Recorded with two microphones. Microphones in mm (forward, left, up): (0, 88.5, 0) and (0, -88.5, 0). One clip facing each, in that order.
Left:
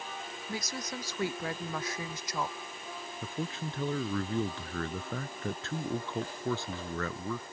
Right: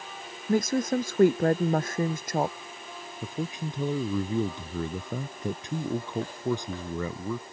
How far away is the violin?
I don't hear a violin.